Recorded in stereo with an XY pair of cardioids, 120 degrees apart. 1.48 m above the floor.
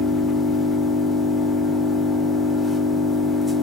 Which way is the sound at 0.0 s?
20° left.